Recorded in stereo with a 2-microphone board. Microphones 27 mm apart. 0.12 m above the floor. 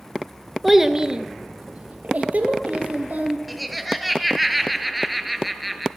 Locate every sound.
0.6 s a child speaking: 5° right (ahead or behind), 0.9 m; by 3.4 s 75° right (ahead or behind), 2.5 m
3.5 s laughter: centre (ahead or behind), 1.7 m